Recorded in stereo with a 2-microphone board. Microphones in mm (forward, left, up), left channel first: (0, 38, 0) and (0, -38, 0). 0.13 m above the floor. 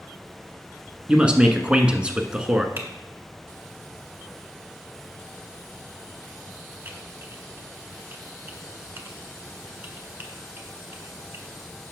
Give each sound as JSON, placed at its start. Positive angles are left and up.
{"t": 1.1, "sound": "a man speaking", "side_deg": -15, "distance_m": 1.1}
{"t": 2.8, "sound": "typing on a keyboard", "side_deg": -30, "distance_m": 1.6}